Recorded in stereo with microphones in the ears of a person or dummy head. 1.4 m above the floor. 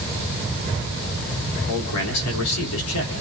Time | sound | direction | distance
1.7 | a man speaking | 80° left | 4.5 m